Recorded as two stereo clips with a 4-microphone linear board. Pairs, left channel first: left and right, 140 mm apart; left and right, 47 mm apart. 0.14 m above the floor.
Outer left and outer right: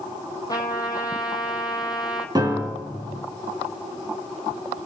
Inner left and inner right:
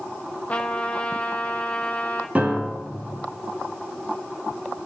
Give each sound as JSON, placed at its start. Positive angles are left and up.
{"t": 0.5, "sound": "a trumpet", "side_deg": 25, "distance_m": 1.5}
{"t": 2.4, "sound": "a piano", "side_deg": -30, "distance_m": 1.4}